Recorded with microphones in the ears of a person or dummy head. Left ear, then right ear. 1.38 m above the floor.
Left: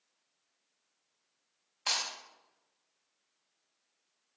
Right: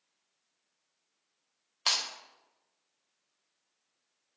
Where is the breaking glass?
60° right (ahead or behind), 2.5 m.